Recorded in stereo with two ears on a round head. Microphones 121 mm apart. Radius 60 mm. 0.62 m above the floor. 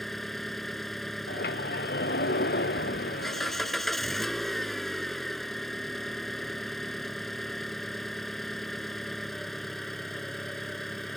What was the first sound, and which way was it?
An engine running, centre (ahead or behind).